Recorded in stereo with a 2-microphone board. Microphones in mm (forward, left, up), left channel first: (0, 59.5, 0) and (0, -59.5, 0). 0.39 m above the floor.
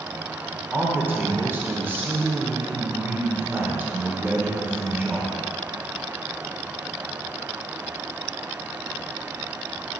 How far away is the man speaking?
About 0.9 m.